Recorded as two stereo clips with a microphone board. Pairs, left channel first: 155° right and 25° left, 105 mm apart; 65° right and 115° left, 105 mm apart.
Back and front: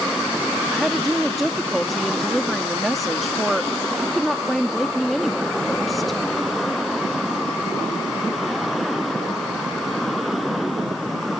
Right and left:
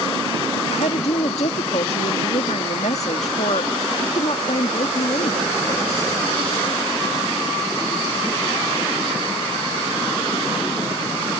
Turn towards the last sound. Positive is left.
turn(degrees=-70)